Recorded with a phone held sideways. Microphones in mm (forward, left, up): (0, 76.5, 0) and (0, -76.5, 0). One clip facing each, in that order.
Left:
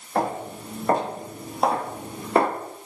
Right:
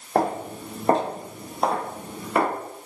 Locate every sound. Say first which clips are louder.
0.1 s footsteps: right 2 dB; 40° right (ahead or behind), 2.0 m; by 2.5 s 35° left (ahead or behind), 1.5 m